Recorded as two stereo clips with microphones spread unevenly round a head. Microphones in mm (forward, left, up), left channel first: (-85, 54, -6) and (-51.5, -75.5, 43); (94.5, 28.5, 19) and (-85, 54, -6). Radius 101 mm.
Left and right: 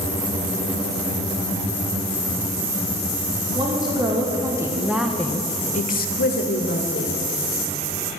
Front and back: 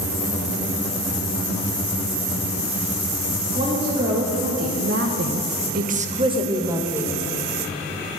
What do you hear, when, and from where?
3.5 s a woman speaking: 120° right, 2.5 m; by 7.2 s 90° left, 1.9 m